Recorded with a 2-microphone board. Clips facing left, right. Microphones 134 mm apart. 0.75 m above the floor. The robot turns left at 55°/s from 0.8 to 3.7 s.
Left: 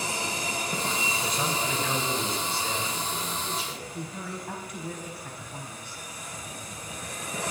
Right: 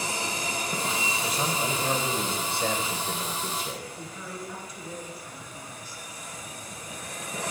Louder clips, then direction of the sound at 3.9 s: Left 2 dB; 65° left (ahead or behind).